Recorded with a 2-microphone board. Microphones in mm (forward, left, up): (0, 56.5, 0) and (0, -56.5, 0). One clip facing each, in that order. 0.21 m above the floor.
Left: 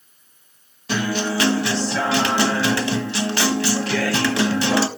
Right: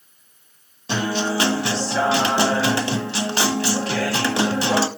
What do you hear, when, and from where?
0.9 s a guitar: 25° right (ahead or behind), 1.4 m